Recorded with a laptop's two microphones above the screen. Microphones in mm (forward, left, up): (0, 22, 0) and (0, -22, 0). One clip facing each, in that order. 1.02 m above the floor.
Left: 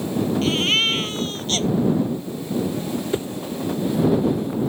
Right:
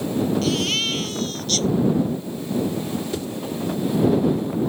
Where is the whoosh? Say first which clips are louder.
Left 3 dB; 25° left (ahead or behind).